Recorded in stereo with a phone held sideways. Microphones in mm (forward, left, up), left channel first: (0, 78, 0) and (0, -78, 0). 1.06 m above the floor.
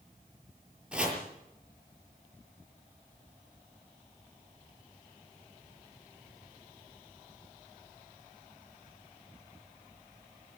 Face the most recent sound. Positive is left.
turn(degrees=-5)  # may be behind; listen again after turning